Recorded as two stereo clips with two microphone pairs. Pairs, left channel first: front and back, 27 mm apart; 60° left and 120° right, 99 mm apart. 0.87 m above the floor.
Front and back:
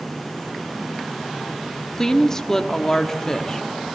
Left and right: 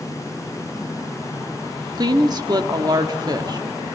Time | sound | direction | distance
1.9 | a woman speaking | 70° right | 1.4 m